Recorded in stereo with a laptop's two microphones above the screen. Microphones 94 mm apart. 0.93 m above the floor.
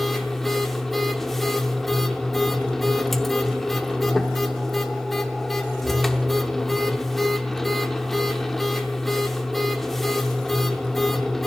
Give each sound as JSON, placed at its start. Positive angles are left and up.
{"t": 0.0, "sound": "a machine running", "side_deg": 0, "distance_m": 0.8}